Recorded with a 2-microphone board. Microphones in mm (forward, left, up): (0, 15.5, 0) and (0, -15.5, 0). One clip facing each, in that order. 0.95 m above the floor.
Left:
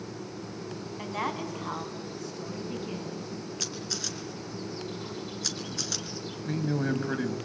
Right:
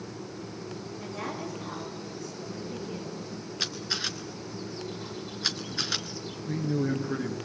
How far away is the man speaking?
About 5 m.